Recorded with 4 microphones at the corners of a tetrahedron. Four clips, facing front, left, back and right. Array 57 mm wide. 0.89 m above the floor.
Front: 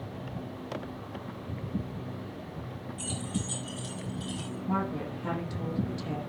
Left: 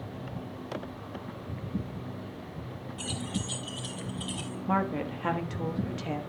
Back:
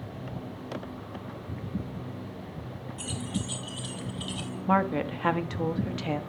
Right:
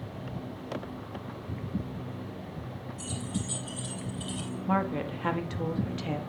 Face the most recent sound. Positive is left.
turn(degrees=175)